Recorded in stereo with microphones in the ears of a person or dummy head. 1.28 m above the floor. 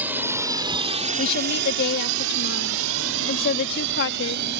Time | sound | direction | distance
0.0 | a drone | 5° right (ahead or behind) | ?
1.2 | a woman speaking | 55° left (ahead or behind) | ?